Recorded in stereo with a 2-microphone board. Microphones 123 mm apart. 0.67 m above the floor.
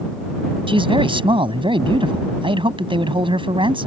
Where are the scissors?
I don't hear scissors.